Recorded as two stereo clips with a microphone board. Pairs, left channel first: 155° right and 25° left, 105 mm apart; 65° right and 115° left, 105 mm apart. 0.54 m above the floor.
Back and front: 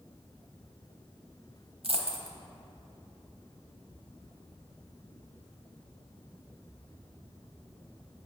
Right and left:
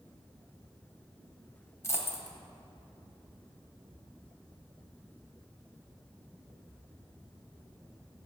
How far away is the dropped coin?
About 0.8 m.